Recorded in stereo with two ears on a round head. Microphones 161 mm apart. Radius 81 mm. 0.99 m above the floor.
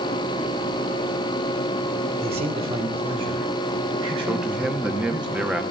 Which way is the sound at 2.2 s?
35° right (ahead or behind).